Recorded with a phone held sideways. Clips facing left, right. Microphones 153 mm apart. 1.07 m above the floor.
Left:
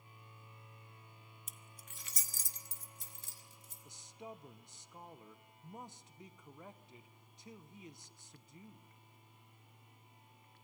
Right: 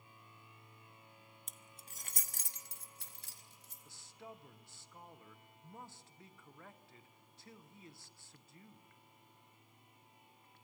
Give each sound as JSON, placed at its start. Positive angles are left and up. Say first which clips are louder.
{"t": 1.5, "sound": "keys jangling", "louder": "even", "side_deg": 5, "distance_m": 0.6}
{"t": 3.9, "sound": "a man speaking", "louder": "left 3 dB", "side_deg": 20, "distance_m": 0.7}